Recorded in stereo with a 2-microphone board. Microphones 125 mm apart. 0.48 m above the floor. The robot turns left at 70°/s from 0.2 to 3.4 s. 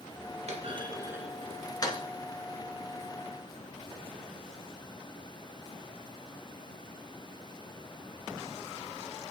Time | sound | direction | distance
0.5 | a clunk | 60° right (ahead or behind) | 1.9 m